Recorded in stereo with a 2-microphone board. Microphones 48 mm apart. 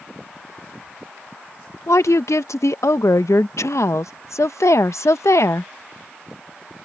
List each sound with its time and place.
1.9 s a woman speaking: 90° left